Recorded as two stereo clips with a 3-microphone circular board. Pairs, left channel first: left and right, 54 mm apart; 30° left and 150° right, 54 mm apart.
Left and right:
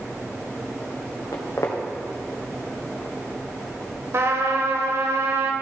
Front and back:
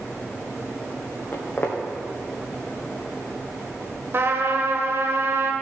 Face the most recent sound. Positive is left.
turn(degrees=-115)